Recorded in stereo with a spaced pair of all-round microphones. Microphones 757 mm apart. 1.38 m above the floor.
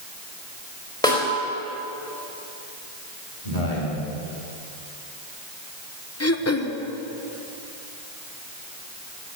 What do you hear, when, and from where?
1.0 s a snare drum: 5° left (ahead or behind), 4.5 m
3.4 s a man speaking: 80° left, 4.5 m
6.2 s throat clearing: 20° left (ahead or behind), 0.9 m